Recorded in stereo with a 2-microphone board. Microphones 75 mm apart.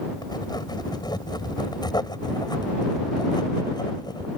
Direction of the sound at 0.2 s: 75° left (ahead or behind).